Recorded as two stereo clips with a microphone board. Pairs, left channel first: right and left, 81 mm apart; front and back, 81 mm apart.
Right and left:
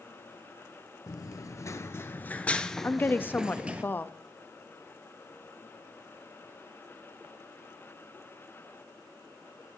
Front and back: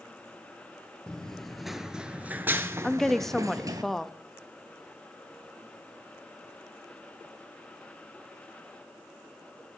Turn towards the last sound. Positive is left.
turn(degrees=-80)